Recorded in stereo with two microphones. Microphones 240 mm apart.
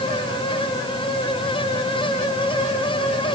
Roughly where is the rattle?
No rattle in this recording.